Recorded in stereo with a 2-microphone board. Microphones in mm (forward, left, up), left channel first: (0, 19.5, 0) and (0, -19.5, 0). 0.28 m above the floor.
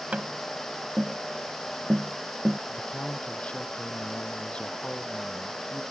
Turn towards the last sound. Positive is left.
turn(degrees=30)  # may be behind; listen again after turning